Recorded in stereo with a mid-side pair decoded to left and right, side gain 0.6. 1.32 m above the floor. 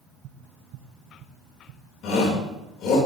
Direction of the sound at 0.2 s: 60° right.